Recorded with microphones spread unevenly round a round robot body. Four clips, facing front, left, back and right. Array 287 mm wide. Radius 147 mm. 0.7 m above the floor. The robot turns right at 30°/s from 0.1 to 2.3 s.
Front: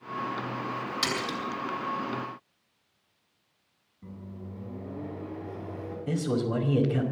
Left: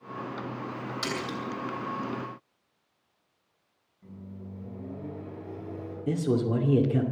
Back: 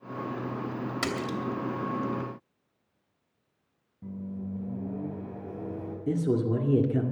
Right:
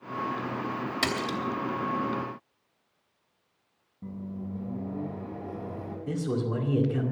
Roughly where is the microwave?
Right.